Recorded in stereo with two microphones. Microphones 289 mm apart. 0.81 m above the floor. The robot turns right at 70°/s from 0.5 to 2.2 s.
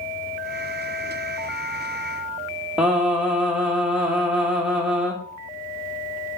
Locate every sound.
2.8 s singing: 5° right (ahead or behind), 1.6 m